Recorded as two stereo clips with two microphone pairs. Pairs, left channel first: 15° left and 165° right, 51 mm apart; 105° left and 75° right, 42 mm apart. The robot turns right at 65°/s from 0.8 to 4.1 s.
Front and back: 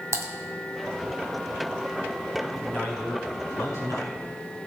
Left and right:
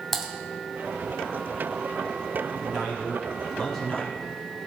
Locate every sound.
0.1 s typing on a keyboard: 165° right, 1.9 m
2.4 s a man speaking: 55° right, 4.5 m; by 4.6 s 50° left, 4.5 m